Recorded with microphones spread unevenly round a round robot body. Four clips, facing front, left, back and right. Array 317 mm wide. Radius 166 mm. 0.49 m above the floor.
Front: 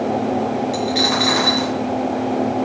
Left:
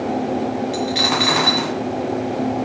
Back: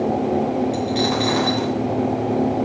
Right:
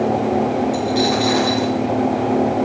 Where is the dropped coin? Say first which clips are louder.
Right 3 dB, front 1 dB; 95° left, 1.6 m.